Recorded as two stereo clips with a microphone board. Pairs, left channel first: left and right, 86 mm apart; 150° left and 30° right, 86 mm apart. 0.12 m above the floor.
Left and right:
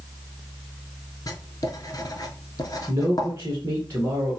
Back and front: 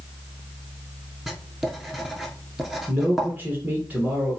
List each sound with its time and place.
1.3 s writing: 55° left, 0.7 m
2.9 s a man speaking: 85° right, 1.2 m